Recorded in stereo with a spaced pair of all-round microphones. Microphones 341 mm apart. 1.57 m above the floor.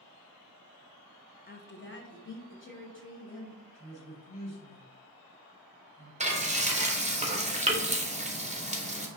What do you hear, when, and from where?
1.5 s a woman speaking: 25° left (ahead or behind), 0.5 m; by 3.6 s 35° left (ahead or behind), 3 m
3.7 s a woman speaking: 60° left (ahead or behind), 2 m
6.2 s frying: 20° right (ahead or behind), 0.7 m